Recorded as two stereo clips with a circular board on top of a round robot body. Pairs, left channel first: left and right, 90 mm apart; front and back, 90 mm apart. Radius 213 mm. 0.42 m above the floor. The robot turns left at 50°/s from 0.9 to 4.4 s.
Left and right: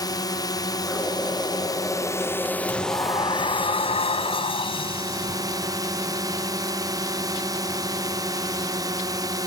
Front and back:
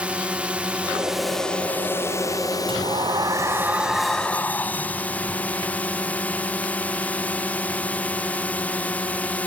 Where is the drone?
105° left; by 9.5 s 70° right.